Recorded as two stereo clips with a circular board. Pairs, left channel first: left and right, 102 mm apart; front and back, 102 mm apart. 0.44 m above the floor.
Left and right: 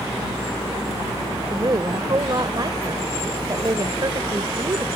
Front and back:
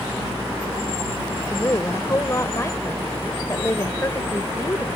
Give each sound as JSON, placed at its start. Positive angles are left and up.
{"t": 1.5, "sound": "a woman speaking", "azimuth_deg": -55}